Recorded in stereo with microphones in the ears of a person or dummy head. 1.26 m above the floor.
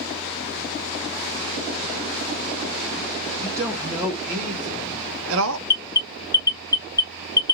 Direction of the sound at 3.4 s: 20° right (ahead or behind).